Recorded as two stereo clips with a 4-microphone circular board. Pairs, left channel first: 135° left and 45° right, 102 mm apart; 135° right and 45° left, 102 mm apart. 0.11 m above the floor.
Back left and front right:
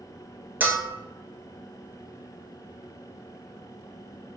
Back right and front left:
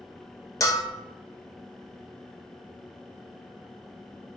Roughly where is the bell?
Right.